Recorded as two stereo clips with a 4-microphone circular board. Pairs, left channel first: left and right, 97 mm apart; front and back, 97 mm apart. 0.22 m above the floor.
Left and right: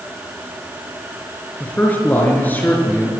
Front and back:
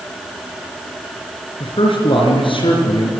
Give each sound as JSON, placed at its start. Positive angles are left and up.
{"t": 1.6, "sound": "a man speaking", "azimuth_deg": 20, "distance_m": 4.0}